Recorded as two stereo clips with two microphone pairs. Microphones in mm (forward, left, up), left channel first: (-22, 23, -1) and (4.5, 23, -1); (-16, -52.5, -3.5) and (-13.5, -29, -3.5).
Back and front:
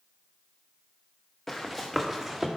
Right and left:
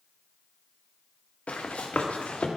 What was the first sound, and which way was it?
Running footsteps, 105° right.